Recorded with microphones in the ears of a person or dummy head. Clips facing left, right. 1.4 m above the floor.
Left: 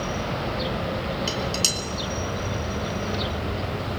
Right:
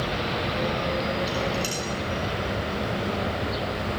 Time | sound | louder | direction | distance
1.3 | dishes clattering | right 1 dB | 60° left (ahead or behind) | 3.5 m